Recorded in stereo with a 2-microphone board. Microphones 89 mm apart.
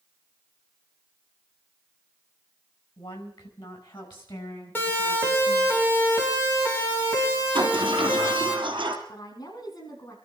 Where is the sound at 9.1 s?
50° left (ahead or behind), 6 m.